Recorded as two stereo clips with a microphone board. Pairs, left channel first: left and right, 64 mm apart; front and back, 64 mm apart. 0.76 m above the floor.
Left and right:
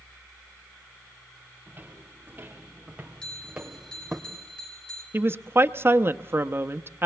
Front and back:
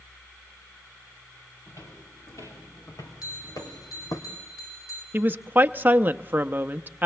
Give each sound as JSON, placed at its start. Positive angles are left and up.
{"t": 1.7, "sound": "footsteps", "azimuth_deg": -25, "distance_m": 5.5}
{"t": 3.2, "sound": "a bell", "azimuth_deg": 15, "distance_m": 4.5}
{"t": 5.1, "sound": "a woman speaking", "azimuth_deg": -130, "distance_m": 0.7}